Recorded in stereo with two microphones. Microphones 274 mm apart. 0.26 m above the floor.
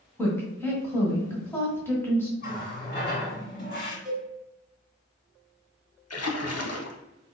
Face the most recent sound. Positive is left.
turn(degrees=60)  # may be behind; listen again after turning